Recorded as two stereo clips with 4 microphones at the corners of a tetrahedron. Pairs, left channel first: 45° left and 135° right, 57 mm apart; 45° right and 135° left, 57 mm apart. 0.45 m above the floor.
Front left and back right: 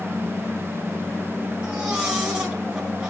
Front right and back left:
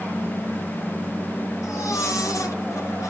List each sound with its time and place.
1.6 s a baby crying: 60° right, 3.5 m